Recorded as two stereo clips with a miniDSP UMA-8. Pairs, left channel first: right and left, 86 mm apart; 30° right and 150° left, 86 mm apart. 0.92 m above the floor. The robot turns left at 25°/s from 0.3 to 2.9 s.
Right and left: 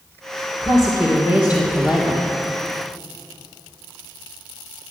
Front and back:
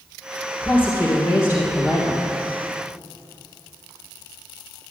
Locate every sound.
0.6 s a woman speaking: 40° left, 3 m; by 2.3 s straight ahead, 3 m